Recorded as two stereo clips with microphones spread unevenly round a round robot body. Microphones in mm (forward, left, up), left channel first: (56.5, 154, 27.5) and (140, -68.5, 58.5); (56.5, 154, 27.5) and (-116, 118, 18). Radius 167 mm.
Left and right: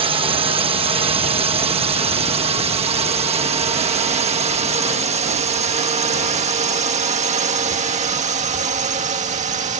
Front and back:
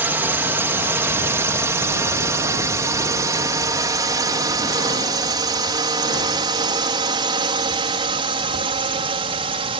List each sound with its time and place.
0.0 s a drone: 115° right; by 9.8 s 125° right